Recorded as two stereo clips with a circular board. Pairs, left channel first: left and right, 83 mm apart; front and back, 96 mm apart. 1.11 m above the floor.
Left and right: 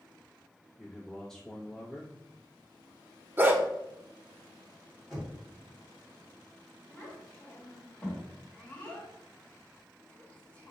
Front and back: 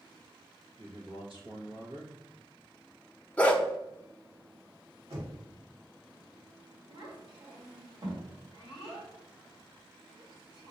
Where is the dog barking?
60° right, 0.6 m.